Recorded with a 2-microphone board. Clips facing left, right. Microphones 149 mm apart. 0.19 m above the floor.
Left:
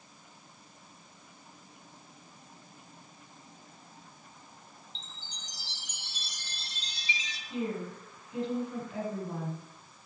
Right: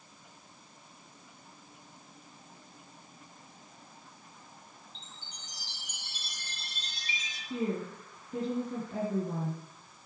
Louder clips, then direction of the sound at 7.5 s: Right 1 dB; 40° right (ahead or behind).